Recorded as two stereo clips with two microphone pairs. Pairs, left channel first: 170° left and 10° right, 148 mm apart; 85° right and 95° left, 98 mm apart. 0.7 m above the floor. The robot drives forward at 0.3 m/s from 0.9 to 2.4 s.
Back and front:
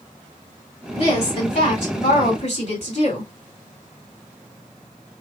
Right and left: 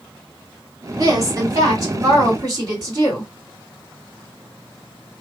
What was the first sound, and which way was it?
A woman speaking, 135° left.